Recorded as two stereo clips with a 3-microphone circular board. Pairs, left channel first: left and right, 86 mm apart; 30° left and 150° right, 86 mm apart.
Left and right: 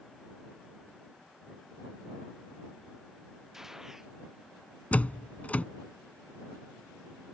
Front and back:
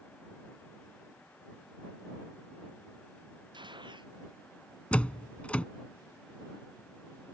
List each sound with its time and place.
3.5 s a gunshot: 175° right
4.9 s a door slam: 70° left